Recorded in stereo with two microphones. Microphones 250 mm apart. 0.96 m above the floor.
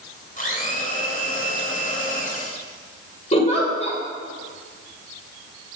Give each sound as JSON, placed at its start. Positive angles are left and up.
{"t": 0.4, "sound": "a blender", "side_deg": 30, "distance_m": 2.0}
{"t": 3.3, "sound": "a giggle", "side_deg": 25, "distance_m": 2.5}